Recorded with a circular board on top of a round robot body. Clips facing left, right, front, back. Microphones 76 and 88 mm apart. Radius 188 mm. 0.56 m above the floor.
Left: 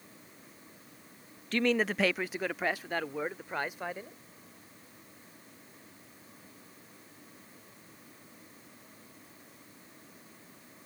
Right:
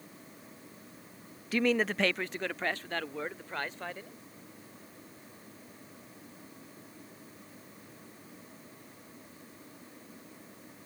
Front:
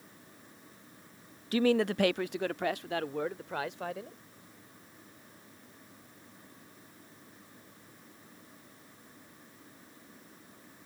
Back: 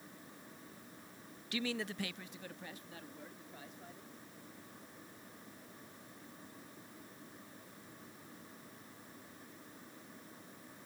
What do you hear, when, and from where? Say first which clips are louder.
1.5 s a man speaking: even, front 13 dB; 10° right; by 4.2 s 15° left